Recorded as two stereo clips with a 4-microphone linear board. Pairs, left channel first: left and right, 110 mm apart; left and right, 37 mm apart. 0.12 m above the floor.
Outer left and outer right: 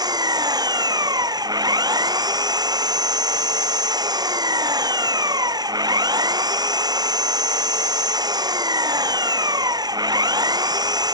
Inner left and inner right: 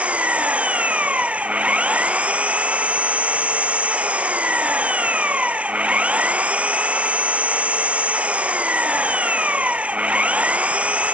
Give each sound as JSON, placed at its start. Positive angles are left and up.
{"t": 0.0, "sound": "an engine running", "side_deg": -40}